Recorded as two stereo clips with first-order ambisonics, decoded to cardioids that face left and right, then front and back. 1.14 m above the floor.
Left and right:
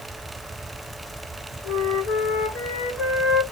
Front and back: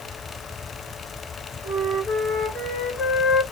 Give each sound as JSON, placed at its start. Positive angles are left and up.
{"t": 1.6, "sound": "a flute", "azimuth_deg": 55, "distance_m": 2.0}